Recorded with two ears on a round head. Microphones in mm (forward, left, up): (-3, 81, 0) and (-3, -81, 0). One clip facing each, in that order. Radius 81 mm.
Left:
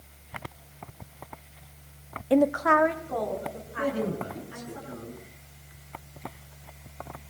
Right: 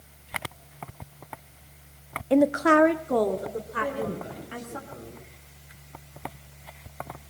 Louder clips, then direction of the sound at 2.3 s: Right 2 dB; 5° left (ahead or behind).